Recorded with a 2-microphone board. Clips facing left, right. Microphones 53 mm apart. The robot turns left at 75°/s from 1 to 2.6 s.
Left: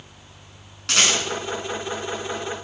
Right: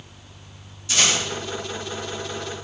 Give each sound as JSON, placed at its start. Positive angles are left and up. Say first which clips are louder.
{"t": 0.9, "sound": "a rattle", "louder": "left 1 dB", "side_deg": 70, "distance_m": 5.0}